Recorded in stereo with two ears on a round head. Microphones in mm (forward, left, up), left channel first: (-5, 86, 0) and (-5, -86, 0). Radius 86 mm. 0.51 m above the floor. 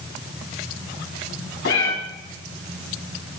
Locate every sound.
1.6 s a cat meowing: 65° left (ahead or behind), 1.6 m